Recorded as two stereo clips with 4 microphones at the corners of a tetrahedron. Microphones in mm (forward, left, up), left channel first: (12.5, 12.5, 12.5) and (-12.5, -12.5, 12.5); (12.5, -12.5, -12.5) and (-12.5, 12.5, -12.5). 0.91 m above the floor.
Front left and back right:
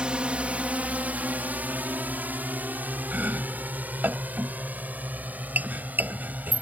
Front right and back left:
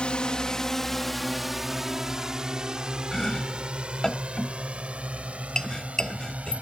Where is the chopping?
115° right.